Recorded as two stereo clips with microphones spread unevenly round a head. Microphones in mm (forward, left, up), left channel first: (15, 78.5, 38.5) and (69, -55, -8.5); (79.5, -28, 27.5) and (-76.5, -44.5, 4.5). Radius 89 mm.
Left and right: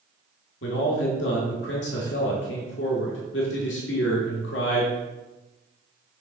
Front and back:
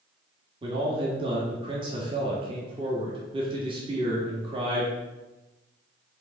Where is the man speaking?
125° left, 1.5 m.